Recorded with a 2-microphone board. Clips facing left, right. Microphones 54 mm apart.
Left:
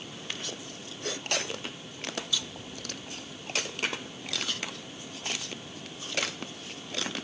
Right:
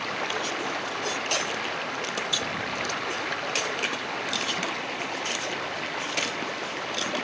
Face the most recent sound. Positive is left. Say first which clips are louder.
# right 11 dB
turn(degrees=-75)  # may be behind; listen again after turning